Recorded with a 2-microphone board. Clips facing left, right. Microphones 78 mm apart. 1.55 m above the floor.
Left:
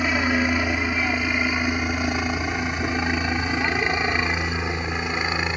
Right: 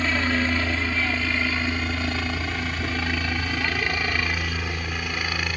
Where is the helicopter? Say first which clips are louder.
Left 2 dB; 15° left (ahead or behind); by 5.6 s 25° left (ahead or behind).